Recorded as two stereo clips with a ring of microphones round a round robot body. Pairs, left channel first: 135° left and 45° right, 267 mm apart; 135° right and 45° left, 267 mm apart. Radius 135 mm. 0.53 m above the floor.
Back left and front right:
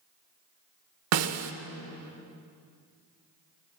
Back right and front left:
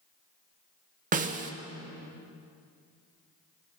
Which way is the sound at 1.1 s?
15° right.